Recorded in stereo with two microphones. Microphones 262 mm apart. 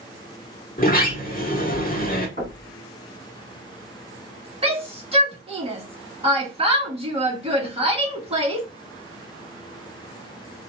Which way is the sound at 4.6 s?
20° right (ahead or behind).